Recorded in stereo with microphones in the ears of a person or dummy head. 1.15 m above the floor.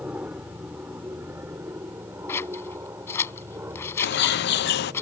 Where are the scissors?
15° left (ahead or behind).